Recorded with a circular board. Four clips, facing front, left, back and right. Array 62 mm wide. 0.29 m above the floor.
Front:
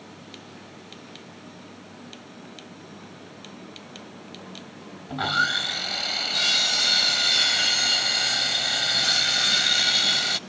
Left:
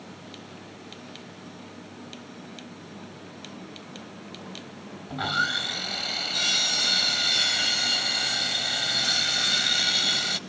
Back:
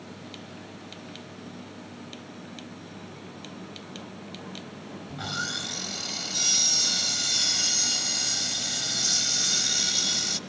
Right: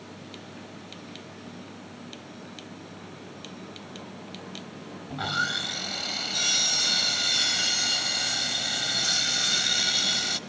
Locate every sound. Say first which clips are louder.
5.1 s sawing: left 2 dB, front 10 dB; 10° left, 0.7 m